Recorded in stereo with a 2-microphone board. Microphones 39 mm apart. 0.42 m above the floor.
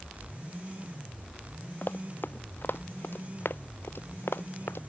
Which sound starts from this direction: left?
Running footsteps, at 1.8 s.